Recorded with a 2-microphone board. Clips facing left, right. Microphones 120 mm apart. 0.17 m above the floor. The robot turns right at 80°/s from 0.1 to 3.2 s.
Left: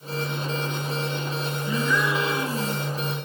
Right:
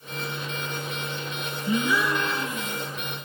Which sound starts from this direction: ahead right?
A gasp, at 1.7 s.